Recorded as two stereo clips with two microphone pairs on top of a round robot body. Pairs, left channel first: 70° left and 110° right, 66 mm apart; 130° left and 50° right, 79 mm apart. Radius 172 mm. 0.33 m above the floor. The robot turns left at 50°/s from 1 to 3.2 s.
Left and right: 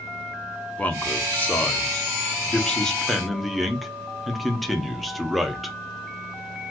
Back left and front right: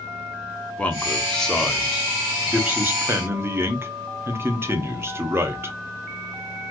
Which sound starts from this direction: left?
A man speaking, at 0.8 s.